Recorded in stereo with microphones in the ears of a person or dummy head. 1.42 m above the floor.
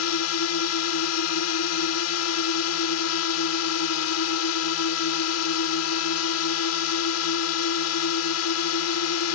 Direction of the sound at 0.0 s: 75° left (ahead or behind).